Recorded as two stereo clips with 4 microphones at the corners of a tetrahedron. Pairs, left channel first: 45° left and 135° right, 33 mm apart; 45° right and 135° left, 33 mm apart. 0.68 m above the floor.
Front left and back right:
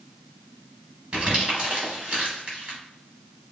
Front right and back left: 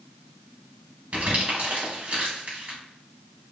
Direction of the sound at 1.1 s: 175° left.